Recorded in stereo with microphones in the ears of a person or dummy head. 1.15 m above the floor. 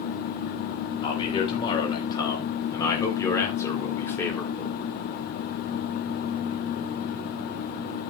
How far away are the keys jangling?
No keys jangling in this recording.